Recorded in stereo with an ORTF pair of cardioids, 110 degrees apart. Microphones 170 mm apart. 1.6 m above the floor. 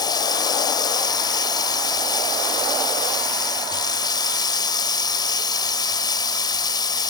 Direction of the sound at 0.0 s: 25° left.